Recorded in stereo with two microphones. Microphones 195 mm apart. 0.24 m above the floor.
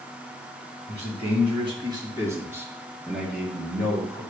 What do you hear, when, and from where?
0.9 s a man speaking: 40° right (ahead or behind), 2 m; by 4.2 s 5° left (ahead or behind), 3 m